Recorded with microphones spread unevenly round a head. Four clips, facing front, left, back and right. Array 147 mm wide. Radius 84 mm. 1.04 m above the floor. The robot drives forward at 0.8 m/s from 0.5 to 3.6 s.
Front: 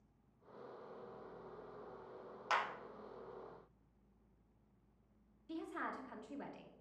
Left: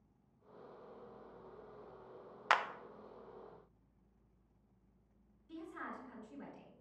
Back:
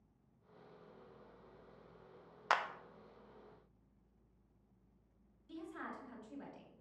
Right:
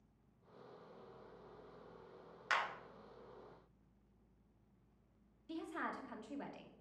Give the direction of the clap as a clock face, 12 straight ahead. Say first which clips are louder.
Left 5 dB, back 2 dB; 8 o'clock.